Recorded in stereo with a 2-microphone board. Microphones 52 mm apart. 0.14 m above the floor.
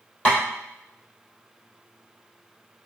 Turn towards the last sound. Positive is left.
turn(degrees=25)  # may be behind; listen again after turning